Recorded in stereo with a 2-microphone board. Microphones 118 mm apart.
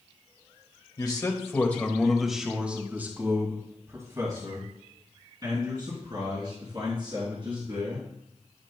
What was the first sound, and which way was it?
A man speaking, 35° left (ahead or behind).